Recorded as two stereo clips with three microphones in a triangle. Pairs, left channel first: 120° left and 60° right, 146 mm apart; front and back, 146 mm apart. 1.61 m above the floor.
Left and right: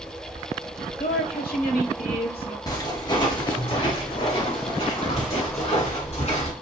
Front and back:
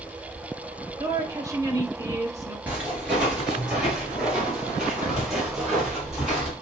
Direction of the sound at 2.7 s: 110° left.